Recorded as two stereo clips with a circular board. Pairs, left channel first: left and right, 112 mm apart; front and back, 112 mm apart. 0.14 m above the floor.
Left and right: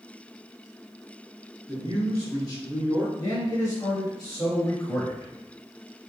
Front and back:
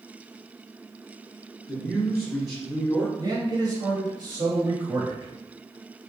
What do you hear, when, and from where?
1.7 s a man speaking: 55° right, 1.9 m
3.2 s a man speaking: 140° left, 1.9 m